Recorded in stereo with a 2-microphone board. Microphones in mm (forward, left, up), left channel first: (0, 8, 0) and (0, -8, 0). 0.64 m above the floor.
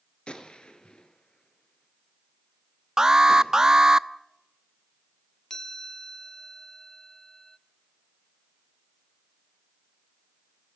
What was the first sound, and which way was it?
A gunshot, 60° left (ahead or behind).